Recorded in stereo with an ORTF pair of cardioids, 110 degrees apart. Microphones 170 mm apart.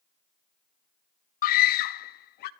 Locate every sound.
1.4 s a scream: 55° left, 0.5 m; by 2.5 s 70° left, 1.4 m